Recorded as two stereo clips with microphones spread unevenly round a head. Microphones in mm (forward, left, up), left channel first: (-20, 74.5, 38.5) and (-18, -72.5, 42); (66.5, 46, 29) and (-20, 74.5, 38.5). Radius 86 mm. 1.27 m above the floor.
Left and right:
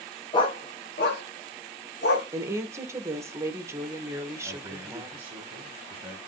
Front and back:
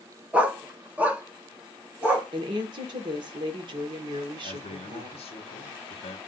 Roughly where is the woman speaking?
Behind.